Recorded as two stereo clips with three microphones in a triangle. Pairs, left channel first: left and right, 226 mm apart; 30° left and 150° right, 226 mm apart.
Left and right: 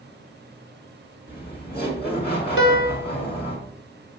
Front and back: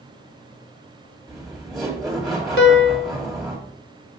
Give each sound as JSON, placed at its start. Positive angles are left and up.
{"t": 1.3, "sound": "laughter", "azimuth_deg": 120, "distance_m": 2.0}
{"t": 2.6, "sound": "a piano", "azimuth_deg": 60, "distance_m": 1.0}